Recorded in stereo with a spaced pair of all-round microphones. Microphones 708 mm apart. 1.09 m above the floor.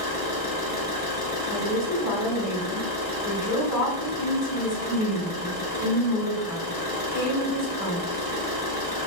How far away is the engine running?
About 0.9 m.